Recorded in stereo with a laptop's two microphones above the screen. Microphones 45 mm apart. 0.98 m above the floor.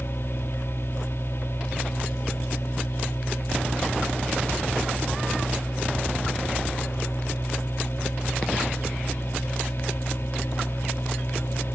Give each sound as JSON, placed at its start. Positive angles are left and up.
{"t": 0.0, "sound": "a machine running", "side_deg": 60, "distance_m": 1.0}